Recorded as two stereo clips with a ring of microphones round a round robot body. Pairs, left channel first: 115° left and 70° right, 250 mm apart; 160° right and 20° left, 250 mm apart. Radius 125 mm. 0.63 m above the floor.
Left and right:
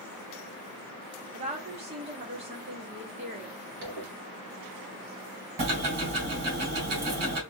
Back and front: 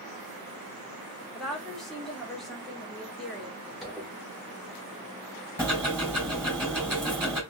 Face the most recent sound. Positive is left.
turn(degrees=-55)